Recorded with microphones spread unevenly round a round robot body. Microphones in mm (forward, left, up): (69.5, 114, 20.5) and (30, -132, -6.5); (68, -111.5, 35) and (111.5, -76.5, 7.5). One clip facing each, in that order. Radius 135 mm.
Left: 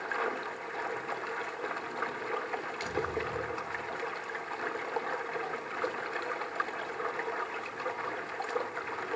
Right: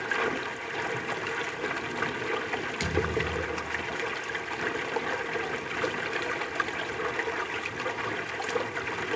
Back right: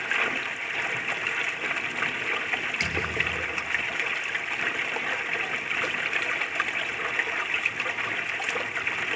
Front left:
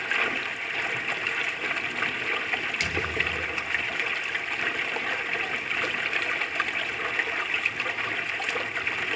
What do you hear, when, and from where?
0.0 s running water: 55° right, 1.0 m
2.8 s a thud: 90° right, 4.5 m